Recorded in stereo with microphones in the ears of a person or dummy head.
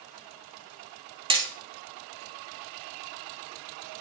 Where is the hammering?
30° right (ahead or behind), 0.8 m.